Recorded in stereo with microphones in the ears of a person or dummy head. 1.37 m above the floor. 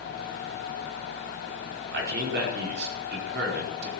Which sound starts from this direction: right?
A man speaking, at 1.9 s.